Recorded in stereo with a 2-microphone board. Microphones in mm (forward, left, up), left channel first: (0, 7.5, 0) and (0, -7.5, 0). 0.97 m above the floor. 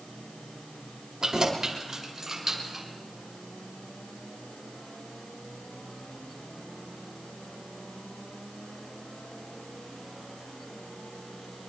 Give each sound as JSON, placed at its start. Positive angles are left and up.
{"t": 1.2, "sound": "keys jangling", "side_deg": -50, "distance_m": 2.5}